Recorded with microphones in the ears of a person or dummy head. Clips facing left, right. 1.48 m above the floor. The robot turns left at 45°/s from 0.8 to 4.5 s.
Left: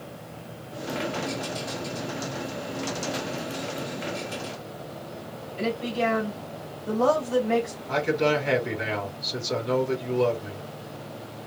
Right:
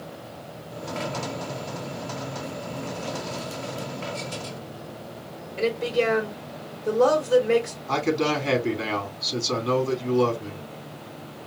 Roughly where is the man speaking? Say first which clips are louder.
Even; right.